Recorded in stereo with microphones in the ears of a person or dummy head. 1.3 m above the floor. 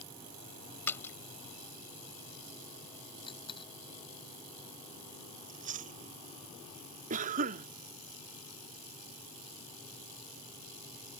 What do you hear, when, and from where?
0.9 s a splash: 20° left (ahead or behind)
3.3 s a dropped coin: 20° left (ahead or behind)
5.5 s chewing: 40° right (ahead or behind)
7.1 s a cough: 45° right (ahead or behind)